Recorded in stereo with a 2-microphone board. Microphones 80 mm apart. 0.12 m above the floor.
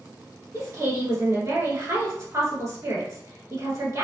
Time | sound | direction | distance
0.5 | a woman speaking | 40° right (ahead or behind) | 1.4 m